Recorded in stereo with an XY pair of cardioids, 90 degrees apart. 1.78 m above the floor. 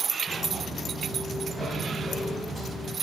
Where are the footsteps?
5° right, 6 m; by 2.9 s straight ahead, 8.5 m.